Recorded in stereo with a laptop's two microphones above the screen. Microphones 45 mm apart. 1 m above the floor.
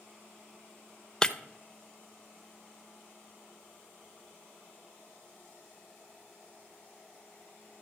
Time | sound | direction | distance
1.2 | breaking glass | 15° left (ahead or behind) | 0.7 m